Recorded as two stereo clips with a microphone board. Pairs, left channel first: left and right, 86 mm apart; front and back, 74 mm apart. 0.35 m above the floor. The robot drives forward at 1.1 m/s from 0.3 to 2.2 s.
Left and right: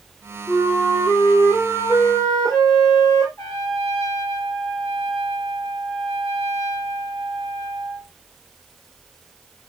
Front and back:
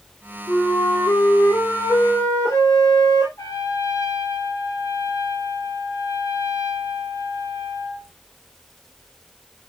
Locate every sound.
0.5 s a flute: 35° left, 7.5 m; by 3.3 s 45° left, 6 m
3.4 s a trumpet: 45° left, 4 m